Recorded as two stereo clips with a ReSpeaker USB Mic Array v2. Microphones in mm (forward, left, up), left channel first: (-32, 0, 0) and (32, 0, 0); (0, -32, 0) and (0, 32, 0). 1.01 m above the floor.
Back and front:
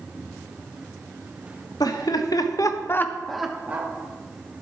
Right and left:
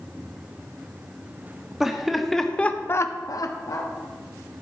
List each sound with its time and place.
1.8 s laughter: 170° left, 1.5 m; by 3.9 s 60° right, 1.2 m